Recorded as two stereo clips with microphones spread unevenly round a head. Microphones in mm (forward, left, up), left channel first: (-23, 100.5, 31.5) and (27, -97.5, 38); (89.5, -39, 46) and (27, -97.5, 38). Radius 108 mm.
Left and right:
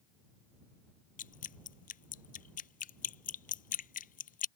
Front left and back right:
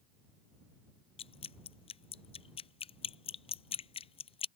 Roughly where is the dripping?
Ahead left.